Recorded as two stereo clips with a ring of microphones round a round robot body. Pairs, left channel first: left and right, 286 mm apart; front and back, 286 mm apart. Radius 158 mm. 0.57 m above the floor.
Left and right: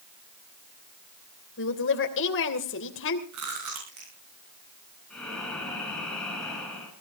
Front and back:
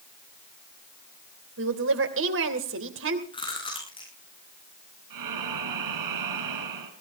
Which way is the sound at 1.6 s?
135° left.